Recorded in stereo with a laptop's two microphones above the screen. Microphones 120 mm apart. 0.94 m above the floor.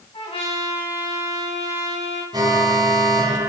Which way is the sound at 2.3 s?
35° right (ahead or behind).